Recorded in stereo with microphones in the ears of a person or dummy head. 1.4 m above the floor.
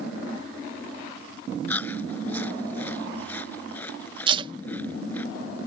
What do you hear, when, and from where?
1.7 s chewing: 10° left (ahead or behind)
4.3 s tape being pulled: 25° right (ahead or behind)